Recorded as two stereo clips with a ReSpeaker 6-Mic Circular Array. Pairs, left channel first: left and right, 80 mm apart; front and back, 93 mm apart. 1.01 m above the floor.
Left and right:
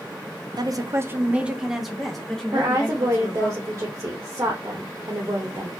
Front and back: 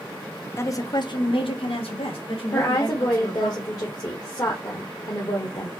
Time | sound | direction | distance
0.6 | a woman speaking | 60° right | 0.6 m
2.5 | a woman speaking | 40° right | 0.9 m